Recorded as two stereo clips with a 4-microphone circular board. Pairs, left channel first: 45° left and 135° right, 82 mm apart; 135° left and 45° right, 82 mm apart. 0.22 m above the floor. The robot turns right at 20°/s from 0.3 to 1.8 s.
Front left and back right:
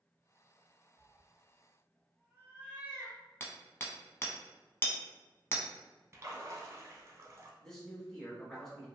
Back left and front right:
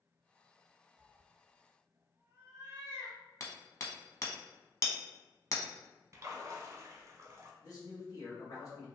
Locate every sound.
1.0 s a cat meowing: 95° right, 0.7 m; by 3.2 s 80° right, 0.7 m
3.4 s hammering: 100° left, 0.6 m
6.1 s a splash: 90° right, 0.6 m
7.6 s a man speaking: 130° left, 1.5 m